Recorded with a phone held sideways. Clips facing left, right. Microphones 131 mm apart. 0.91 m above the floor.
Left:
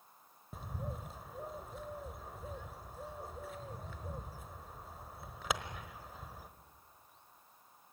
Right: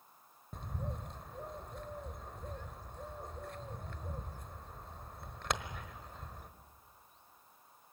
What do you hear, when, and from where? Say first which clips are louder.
0.5 s a bird: even; 5° left (ahead or behind), 1.2 m